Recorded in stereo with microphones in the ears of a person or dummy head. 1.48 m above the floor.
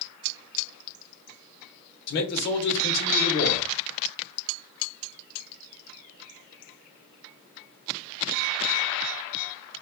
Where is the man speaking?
60° left (ahead or behind), 0.9 m.